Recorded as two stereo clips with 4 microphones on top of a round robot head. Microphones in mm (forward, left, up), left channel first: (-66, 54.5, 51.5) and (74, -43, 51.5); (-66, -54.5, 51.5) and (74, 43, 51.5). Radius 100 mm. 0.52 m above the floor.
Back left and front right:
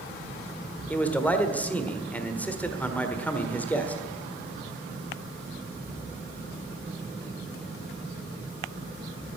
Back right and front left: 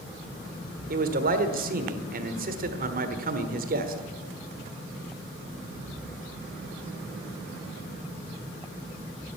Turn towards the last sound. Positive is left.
turn(degrees=65)